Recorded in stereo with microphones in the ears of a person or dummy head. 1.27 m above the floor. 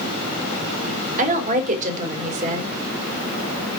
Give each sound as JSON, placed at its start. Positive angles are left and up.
{"t": 1.2, "sound": "a woman speaking", "side_deg": -40, "distance_m": 3.5}